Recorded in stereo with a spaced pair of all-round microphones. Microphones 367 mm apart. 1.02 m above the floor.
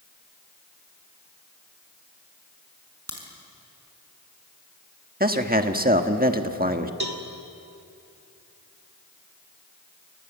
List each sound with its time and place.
3.1 s a crack: 40° right (ahead or behind), 5 m
5.2 s a man speaking: 25° right (ahead or behind), 1.5 m
7.0 s a cowbell: 85° right, 2.5 m